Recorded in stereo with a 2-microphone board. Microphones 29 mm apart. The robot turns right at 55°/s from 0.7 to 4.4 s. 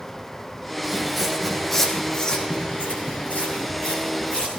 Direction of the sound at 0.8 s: 10° right (ahead or behind).